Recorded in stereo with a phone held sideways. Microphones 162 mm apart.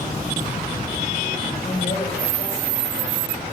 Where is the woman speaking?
55° left (ahead or behind), 7 m.